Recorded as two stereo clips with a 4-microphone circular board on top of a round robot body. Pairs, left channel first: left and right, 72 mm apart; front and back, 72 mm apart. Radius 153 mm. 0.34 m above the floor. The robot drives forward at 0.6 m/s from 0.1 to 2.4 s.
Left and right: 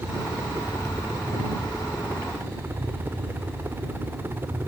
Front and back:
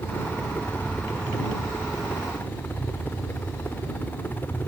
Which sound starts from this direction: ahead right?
A helicopter, at 0.0 s.